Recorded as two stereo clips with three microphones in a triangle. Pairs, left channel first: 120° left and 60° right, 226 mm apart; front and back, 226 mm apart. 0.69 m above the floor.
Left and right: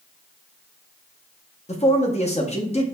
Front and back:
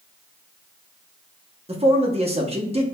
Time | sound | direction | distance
1.7 | a man speaking | 145° left | 0.8 m